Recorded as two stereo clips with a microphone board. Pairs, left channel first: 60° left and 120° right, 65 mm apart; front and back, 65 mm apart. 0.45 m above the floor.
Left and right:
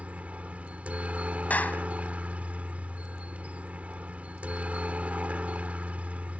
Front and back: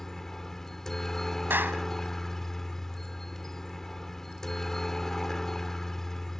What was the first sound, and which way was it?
A helicopter, 75° right.